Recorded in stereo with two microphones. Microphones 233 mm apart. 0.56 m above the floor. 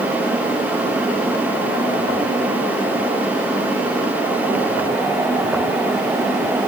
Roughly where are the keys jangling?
I don't hear keys jangling.